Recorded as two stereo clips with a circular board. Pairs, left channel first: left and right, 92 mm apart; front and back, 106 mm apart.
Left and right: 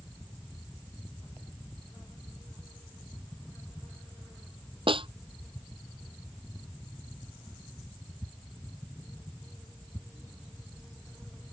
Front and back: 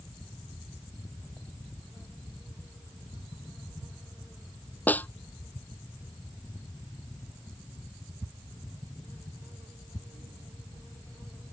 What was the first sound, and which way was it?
A snare drum, 75° right.